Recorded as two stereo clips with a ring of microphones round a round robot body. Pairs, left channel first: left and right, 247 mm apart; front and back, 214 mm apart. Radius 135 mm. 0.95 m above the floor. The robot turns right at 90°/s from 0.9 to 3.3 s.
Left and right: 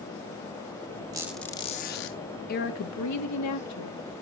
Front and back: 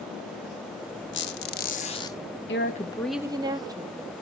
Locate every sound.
1.1 s a squeak: 20° right, 0.6 m; by 2.2 s 75° left, 0.6 m
2.5 s a woman speaking: 35° left, 1.4 m; by 4.0 s 105° left, 1.4 m